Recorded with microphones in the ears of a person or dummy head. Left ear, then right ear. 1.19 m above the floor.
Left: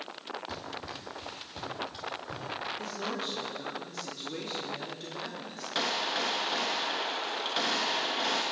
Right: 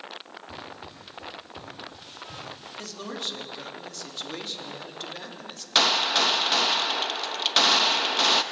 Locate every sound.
0.5 s running footsteps: 30° left (ahead or behind), 6.5 m; by 2.7 s 40° left (ahead or behind), 7 m
2.8 s a man speaking: 40° right (ahead or behind), 3 m
5.8 s a gunshot: 50° right (ahead or behind), 0.6 m